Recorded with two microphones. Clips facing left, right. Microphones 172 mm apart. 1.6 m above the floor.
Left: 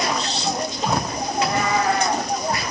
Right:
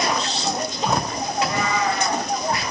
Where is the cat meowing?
60° left (ahead or behind), 2.5 m.